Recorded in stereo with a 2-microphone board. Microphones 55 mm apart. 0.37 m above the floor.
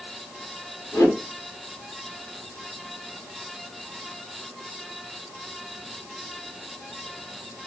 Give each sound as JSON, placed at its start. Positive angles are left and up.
{"t": 0.9, "sound": "a whoosh", "side_deg": 70, "distance_m": 1.5}